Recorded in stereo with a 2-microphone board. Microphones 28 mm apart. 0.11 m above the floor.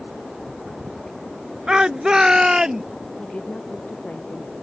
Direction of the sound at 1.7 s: 30° right (ahead or behind).